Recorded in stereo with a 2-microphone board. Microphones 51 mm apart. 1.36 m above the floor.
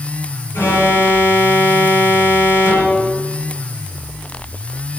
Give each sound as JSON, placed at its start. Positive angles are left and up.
{"t": 0.5, "sound": "an alarm", "side_deg": 80, "distance_m": 7.0}